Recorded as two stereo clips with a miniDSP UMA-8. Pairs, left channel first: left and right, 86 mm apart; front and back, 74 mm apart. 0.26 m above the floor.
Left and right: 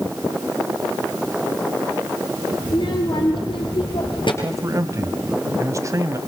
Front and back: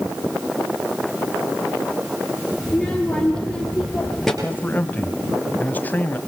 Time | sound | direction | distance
2.6 | a child speaking | 80° left | 4.5 m
4.4 | a man speaking | 55° right | 1.8 m